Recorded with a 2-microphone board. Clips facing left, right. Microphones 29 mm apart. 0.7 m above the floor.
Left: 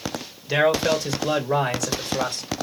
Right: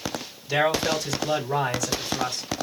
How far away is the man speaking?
About 2.5 m.